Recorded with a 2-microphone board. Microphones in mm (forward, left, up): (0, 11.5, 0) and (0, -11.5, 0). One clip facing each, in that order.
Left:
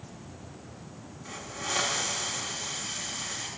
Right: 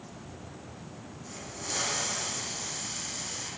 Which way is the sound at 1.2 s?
75° left (ahead or behind).